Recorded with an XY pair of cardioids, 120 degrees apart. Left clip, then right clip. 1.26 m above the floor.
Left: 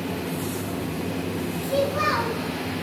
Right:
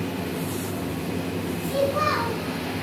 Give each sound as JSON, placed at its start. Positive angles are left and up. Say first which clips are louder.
{"t": 1.6, "sound": "a child speaking", "louder": "even", "azimuth_deg": 50, "distance_m": 1.4}